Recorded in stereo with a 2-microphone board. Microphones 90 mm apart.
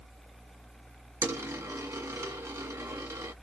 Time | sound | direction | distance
1.2 | a dropped coin | 30° right (ahead or behind) | 1.5 m